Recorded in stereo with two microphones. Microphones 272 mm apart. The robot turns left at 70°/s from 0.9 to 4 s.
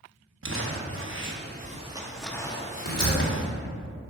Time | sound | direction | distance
0.4 | crumpling | 45° right (ahead or behind) | 0.9 m
2.9 | a door slam | 55° left (ahead or behind) | 2.5 m